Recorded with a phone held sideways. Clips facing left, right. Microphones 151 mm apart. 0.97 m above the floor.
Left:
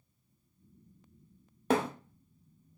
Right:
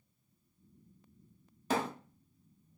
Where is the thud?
50° left (ahead or behind), 0.6 m.